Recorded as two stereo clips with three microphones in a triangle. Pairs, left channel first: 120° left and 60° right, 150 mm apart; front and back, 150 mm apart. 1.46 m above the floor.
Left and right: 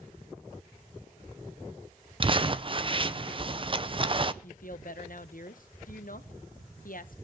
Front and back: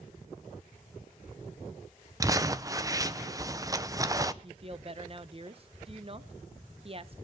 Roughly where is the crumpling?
Behind right.